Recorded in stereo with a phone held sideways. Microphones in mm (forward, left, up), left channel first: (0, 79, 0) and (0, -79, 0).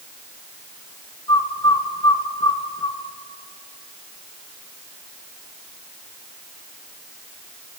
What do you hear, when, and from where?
1.3 s a bird: 30° left (ahead or behind), 0.7 m